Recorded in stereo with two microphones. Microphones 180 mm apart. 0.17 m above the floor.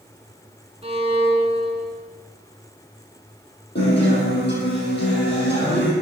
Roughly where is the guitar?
Left.